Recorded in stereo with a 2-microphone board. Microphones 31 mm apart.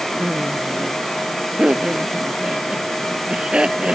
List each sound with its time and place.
0.2 s laughter: 35° right (ahead or behind)